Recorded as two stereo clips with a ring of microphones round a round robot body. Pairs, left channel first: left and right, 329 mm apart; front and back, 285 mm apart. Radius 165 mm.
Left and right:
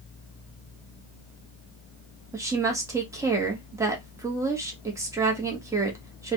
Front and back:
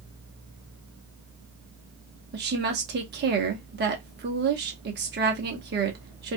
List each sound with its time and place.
2.3 s a woman speaking: 165° right, 0.8 m